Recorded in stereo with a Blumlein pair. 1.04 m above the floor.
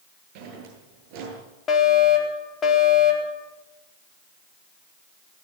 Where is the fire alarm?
25° left, 4 m.